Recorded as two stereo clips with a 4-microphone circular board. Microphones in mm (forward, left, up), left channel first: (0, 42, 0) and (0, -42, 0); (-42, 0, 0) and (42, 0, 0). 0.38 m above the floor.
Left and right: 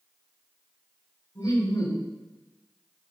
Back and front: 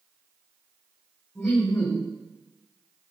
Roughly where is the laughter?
Left.